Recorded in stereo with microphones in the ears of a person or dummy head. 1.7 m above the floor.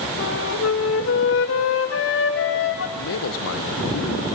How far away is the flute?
About 1.9 m.